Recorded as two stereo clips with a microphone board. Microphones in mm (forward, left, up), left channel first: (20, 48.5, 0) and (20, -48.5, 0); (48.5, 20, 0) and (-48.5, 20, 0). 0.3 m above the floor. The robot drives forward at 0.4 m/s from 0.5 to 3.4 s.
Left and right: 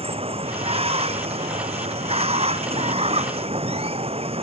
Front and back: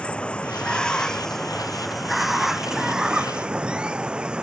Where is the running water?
80° right; by 4.4 s 100° right.